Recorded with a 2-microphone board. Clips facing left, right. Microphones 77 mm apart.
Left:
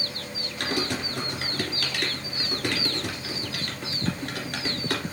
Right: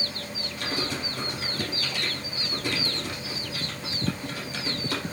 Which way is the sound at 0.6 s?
65° left (ahead or behind).